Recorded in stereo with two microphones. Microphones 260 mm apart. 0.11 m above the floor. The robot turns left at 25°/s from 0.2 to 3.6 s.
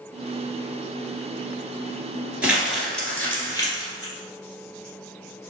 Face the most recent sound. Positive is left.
turn(degrees=15)  # may be behind; listen again after turning